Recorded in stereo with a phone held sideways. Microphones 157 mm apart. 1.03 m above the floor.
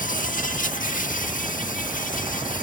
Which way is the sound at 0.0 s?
65° left (ahead or behind).